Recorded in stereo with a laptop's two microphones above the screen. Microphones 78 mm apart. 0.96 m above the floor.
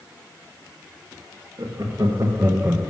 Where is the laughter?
50° right (ahead or behind), 1.4 m; by 2.9 s 5° right (ahead or behind), 0.6 m.